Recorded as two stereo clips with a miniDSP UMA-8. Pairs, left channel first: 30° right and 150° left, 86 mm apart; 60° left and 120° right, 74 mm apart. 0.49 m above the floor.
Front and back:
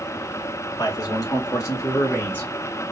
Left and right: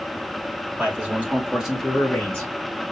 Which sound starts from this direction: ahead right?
A man speaking, at 0.8 s.